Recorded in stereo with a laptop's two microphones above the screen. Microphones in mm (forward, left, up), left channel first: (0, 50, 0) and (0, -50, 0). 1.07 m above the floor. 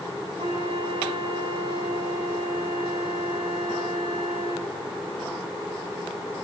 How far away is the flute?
About 9 m.